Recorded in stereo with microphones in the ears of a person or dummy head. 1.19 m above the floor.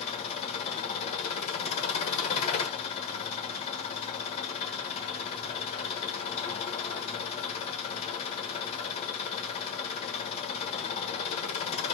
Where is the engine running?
40° left (ahead or behind), 1.2 m.